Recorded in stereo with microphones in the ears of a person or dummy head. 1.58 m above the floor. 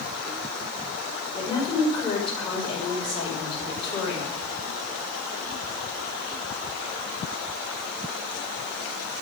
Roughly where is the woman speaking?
Left.